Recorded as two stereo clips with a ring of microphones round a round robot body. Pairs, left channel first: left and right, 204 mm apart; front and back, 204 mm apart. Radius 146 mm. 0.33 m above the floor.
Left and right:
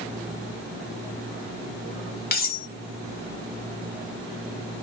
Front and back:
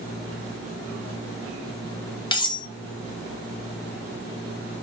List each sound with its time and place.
2.3 s cutlery clinking: 65° left, 0.6 m